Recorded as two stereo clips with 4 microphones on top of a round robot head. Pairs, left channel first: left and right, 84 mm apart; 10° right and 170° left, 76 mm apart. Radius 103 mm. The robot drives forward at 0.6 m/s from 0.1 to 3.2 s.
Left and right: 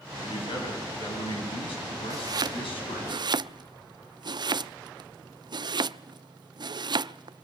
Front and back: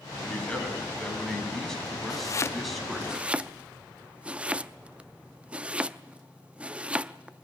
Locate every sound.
0.2 s a man speaking: 65° left, 7 m; by 3.1 s 80° left, 6.5 m
2.1 s chopping: 45° right, 0.7 m; by 7.5 s 115° right, 0.6 m